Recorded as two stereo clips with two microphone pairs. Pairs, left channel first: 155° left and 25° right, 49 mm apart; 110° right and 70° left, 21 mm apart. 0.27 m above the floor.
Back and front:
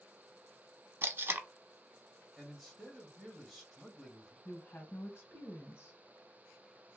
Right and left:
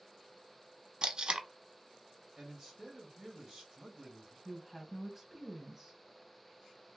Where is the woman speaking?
145° left, 1.5 m.